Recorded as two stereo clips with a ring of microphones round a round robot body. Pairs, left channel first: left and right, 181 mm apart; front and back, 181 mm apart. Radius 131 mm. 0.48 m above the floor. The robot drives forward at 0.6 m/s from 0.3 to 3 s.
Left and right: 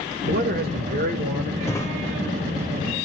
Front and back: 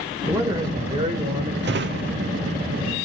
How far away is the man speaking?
About 1.9 m.